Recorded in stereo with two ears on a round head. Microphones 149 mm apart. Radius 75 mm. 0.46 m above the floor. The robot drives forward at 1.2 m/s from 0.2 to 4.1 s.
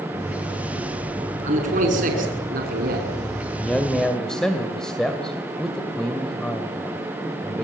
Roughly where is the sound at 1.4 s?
Right.